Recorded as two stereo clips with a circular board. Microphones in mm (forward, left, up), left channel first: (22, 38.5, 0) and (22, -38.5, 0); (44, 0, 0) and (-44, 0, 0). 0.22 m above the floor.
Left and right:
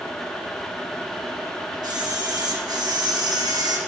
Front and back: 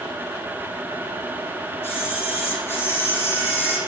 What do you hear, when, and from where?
1.8 s a camera shutter: 65° right, 6 m